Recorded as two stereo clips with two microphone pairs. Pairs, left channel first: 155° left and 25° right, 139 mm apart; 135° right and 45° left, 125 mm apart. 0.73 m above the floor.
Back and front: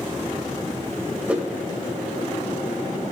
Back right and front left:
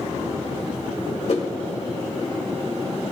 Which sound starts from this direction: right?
A whoosh, at 1.3 s.